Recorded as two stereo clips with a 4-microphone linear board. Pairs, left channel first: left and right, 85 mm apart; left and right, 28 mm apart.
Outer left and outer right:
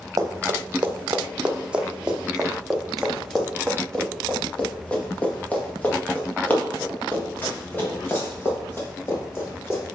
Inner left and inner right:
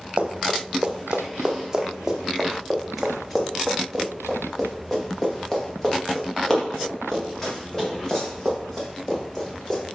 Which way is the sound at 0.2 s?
40° right (ahead or behind).